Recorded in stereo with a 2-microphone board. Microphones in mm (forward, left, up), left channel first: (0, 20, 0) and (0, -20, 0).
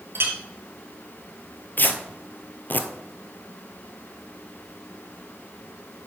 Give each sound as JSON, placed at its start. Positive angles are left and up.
{"t": 0.1, "sound": "a clink", "side_deg": -70, "distance_m": 1.8}
{"t": 1.8, "sound": "tearing paper", "side_deg": 50, "distance_m": 0.9}